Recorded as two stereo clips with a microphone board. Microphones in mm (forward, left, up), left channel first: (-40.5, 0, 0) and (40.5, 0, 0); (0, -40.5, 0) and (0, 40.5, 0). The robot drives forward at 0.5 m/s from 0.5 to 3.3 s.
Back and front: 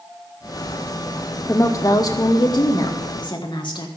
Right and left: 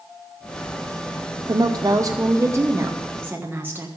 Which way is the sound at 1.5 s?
120° left.